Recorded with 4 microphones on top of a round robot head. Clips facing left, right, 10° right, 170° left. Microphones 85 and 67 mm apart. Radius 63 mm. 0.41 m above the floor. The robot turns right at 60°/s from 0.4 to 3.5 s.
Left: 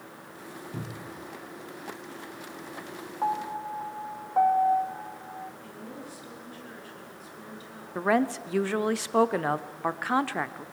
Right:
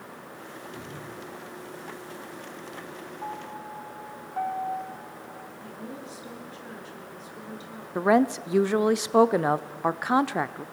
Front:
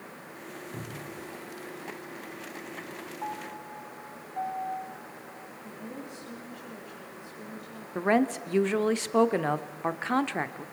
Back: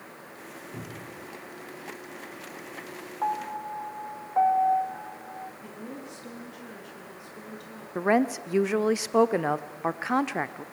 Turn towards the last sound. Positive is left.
turn(degrees=-125)